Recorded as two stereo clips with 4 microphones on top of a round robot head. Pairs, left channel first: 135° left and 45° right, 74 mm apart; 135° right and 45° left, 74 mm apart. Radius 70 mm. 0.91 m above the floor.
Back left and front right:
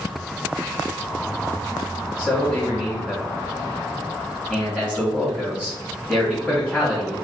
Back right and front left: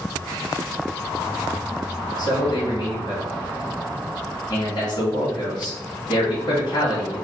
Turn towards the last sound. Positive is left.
turn(degrees=-150)